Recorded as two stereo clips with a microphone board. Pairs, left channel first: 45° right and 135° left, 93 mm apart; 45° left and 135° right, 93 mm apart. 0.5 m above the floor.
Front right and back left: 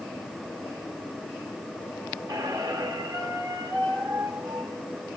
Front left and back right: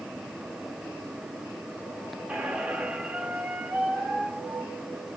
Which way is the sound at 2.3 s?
155° left.